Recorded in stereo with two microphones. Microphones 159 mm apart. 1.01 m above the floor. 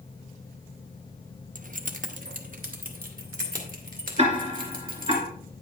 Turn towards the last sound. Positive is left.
turn(degrees=-40)  # may be behind; listen again after turning